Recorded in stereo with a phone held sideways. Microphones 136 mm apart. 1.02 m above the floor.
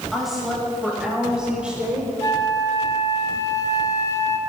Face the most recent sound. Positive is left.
turn(degrees=25)  # may be behind; listen again after turning